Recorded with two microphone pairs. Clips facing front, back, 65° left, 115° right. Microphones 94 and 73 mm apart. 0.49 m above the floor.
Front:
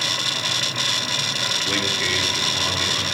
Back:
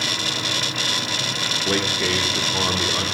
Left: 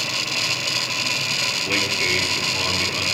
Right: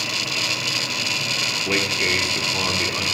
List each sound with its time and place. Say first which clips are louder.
1.7 s a man speaking: back 4 dB, right 2 dB; 170° right, 0.8 m